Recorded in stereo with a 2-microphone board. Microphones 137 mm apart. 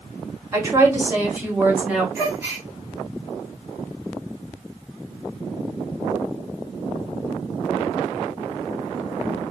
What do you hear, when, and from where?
0.5 s a woman speaking: 20° right (ahead or behind), 2.5 m; by 2.0 s 10° right (ahead or behind), 3 m
2.1 s a gasp: 15° right (ahead or behind), 3 m